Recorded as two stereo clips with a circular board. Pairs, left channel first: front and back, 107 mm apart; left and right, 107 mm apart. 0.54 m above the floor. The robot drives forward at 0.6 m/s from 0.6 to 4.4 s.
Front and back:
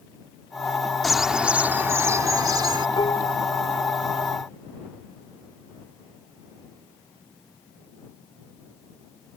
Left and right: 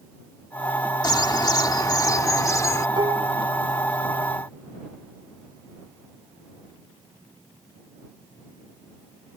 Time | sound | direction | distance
1.0 | a bird | 90° left | ?
3.0 | dishes clattering | 45° right | ?